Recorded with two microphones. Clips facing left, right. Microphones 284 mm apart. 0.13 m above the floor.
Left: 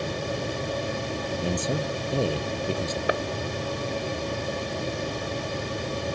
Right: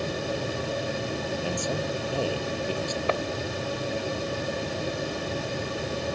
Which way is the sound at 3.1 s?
15° left (ahead or behind).